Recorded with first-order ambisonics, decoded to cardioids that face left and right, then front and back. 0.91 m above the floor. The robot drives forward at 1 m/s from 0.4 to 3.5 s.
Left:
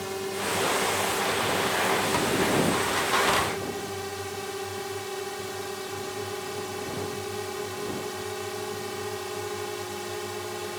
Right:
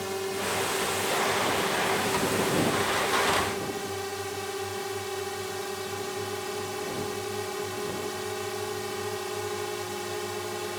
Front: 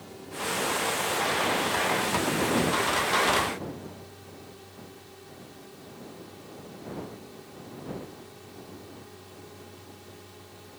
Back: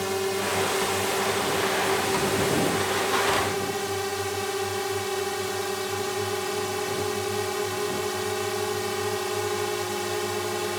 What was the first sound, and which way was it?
A drone, 175° right.